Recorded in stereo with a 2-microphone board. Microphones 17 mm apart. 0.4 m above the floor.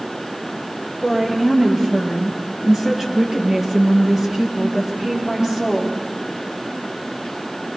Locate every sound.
1.0 s a woman speaking: 20° right (ahead or behind), 9 m; by 6.0 s 45° right (ahead or behind), 10 m